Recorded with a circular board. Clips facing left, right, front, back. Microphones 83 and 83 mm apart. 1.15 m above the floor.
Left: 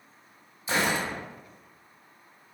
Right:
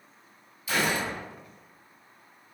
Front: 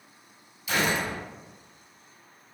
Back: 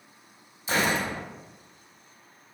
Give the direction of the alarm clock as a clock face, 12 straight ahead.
No alarm clock in this recording.